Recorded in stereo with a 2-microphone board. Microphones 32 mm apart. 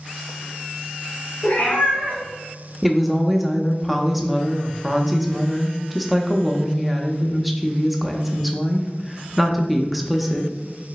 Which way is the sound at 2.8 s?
5° right (ahead or behind).